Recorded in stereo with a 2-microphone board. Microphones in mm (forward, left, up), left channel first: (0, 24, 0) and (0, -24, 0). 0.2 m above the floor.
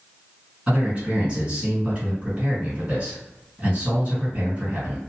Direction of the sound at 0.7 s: 20° right (ahead or behind).